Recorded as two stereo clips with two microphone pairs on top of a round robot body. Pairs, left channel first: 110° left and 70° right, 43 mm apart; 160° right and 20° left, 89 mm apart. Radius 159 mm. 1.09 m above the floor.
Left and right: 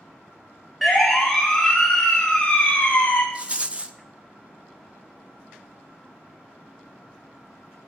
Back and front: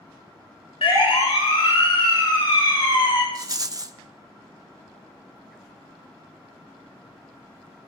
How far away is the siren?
About 5.5 m.